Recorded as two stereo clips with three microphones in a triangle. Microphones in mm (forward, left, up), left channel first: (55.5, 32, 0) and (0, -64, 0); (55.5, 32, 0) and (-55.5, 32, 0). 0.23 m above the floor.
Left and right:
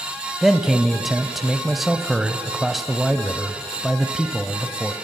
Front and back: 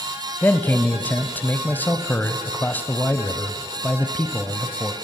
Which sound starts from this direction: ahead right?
A man speaking, at 0.4 s.